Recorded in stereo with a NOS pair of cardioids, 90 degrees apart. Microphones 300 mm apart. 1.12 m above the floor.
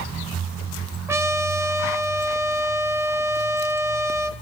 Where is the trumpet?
10° right, 0.8 m.